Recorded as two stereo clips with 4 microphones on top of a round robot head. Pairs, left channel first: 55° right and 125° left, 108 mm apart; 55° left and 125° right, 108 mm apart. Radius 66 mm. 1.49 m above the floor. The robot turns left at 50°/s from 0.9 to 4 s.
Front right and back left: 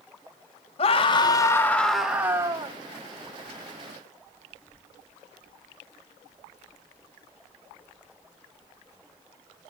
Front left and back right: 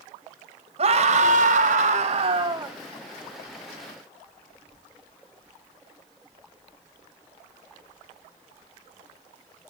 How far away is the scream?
About 2 m.